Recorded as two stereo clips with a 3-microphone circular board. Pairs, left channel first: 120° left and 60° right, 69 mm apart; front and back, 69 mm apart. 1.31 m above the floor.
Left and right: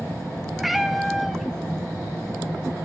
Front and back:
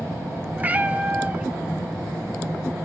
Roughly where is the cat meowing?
Behind right.